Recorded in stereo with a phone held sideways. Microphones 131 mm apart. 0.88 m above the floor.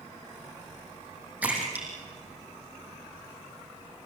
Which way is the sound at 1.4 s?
10° right (ahead or behind).